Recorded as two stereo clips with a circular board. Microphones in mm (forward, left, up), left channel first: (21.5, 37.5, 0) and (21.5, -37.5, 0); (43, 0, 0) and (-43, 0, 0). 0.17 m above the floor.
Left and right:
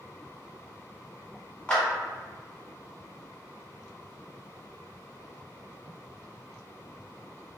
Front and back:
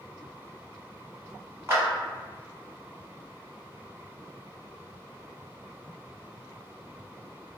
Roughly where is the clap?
Behind left.